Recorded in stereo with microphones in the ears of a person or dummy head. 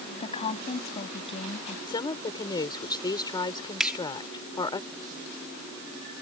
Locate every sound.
0.2 s a woman speaking: 35° left (ahead or behind)
1.9 s a woman speaking: 25° left (ahead or behind)
3.8 s a finger snap: 5° right (ahead or behind)